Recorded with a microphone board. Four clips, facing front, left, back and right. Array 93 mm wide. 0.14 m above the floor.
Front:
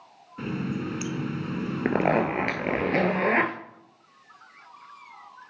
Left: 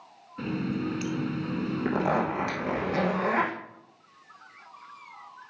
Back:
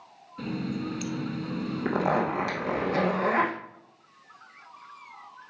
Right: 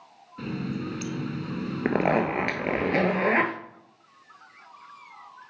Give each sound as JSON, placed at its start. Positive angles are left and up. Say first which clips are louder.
{"t": 0.4, "sound": "a running tap", "louder": "left 2 dB, front 1 dB", "azimuth_deg": 25, "distance_m": 0.7}
{"t": 1.9, "sound": "a zipper", "louder": "right 4 dB, front 3 dB", "azimuth_deg": -45, "distance_m": 1.2}